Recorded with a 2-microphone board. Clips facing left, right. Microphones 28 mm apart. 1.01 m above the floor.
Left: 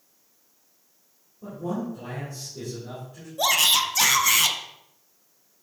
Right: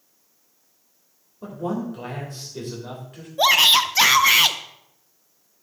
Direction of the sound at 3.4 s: 30° right (ahead or behind).